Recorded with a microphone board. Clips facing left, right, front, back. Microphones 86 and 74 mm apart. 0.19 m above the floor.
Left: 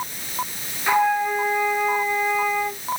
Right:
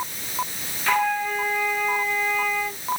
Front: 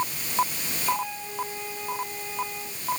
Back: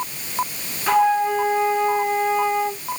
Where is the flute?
165° left.